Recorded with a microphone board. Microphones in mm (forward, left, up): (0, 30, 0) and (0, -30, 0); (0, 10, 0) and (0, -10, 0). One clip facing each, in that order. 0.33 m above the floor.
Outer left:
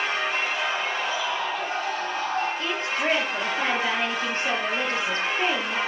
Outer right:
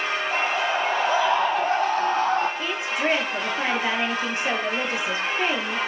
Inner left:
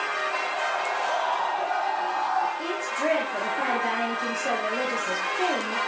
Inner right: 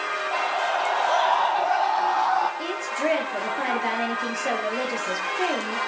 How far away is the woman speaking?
About 7 m.